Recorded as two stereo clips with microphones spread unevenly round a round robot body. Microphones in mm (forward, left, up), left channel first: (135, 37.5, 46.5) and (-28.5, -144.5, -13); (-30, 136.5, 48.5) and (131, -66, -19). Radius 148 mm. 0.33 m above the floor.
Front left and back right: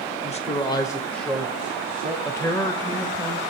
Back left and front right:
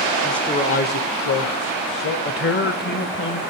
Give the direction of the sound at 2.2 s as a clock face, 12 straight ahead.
7 o'clock.